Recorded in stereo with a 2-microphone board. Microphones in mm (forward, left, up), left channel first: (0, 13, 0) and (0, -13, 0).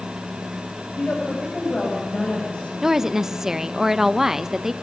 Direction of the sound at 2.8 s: 15° right (ahead or behind).